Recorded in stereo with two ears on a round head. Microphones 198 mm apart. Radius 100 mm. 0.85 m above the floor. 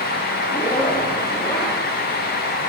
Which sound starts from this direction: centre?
A zipper, at 0.5 s.